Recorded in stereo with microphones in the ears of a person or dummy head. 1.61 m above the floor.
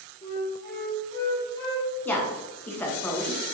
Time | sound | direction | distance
0.2 | a flute | 20° left (ahead or behind) | 0.9 m
2.0 | a woman speaking | 15° left (ahead or behind) | 0.7 m